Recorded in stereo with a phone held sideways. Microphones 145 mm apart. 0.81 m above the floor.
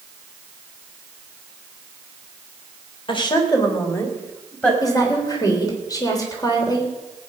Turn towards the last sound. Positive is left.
turn(degrees=25)  # may be behind; listen again after turning